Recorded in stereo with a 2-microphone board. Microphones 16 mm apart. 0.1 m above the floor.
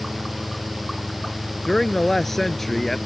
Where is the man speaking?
15° left (ahead or behind).